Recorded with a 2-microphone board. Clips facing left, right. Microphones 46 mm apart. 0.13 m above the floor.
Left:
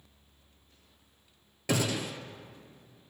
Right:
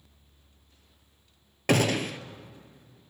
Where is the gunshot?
60° right (ahead or behind), 0.6 m.